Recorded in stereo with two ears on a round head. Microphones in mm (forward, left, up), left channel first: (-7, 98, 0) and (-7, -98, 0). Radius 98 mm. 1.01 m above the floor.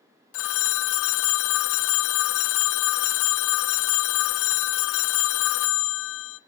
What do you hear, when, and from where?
0.3 s a phone ringing: 65° left (ahead or behind), 0.6 m